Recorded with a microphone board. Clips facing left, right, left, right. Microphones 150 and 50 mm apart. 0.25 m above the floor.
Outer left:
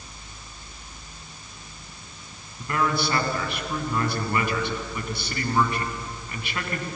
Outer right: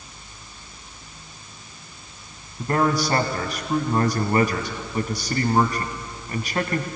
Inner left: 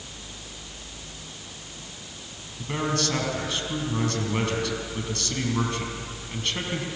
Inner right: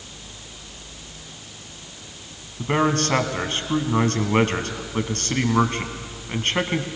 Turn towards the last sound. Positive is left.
turn(degrees=-45)  # may be behind; listen again after turning